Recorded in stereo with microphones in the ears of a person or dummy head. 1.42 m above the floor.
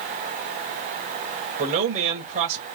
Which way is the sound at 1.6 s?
45° right (ahead or behind).